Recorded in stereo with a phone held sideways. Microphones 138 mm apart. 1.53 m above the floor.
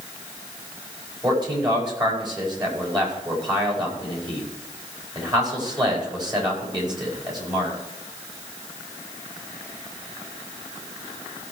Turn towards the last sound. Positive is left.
turn(degrees=-30)  # may be behind; listen again after turning